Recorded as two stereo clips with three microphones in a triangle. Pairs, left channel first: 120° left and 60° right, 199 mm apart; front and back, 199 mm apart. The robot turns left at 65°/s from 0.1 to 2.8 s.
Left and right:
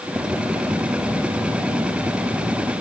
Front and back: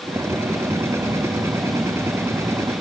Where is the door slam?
I don't hear a door slam.